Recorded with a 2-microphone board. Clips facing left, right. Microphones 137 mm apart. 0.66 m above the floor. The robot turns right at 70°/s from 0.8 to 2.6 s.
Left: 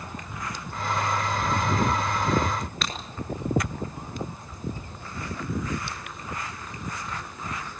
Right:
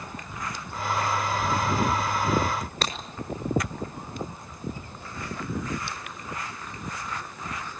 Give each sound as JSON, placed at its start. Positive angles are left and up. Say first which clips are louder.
{"t": 2.8, "sound": "breaking glass", "louder": "right 2 dB", "side_deg": -40, "distance_m": 6.0}